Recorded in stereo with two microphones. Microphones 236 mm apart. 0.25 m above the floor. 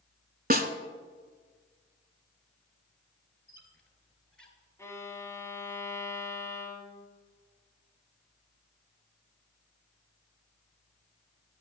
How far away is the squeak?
About 1.5 m.